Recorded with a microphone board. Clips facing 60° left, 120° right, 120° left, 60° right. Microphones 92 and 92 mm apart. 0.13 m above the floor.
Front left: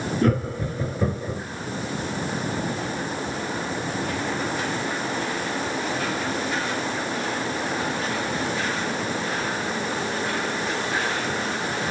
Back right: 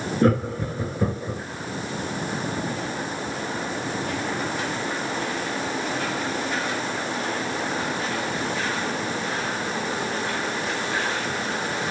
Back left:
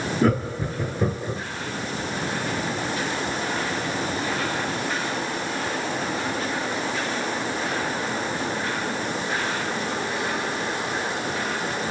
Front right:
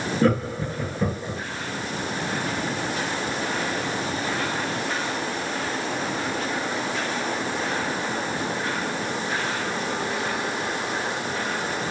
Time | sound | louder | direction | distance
0.2 | laughter | back right 3 dB, front right 1 dB | 160° right | 1.8 m